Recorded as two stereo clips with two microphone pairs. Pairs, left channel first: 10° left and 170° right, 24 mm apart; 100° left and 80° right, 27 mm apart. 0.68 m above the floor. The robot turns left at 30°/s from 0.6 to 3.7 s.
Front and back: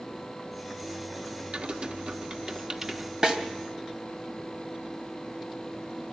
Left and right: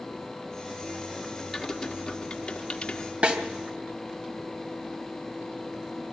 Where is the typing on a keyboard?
175° left, 1.4 m; by 3.1 s 130° left, 1.4 m.